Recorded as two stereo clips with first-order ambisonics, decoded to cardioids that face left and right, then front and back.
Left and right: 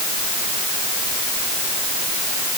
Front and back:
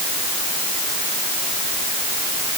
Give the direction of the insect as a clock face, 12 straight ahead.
No insect in this recording.